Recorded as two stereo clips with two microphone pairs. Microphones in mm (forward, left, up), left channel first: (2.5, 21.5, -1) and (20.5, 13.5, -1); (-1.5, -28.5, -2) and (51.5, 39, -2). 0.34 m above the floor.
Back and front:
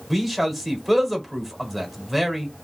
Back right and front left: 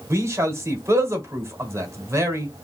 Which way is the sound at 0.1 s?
60° left.